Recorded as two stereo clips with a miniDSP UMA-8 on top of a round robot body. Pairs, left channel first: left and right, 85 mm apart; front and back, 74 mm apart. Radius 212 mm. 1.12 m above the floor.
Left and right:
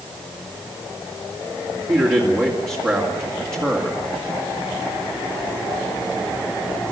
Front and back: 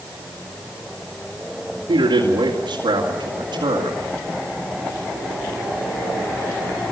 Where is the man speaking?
155° right, 3 m.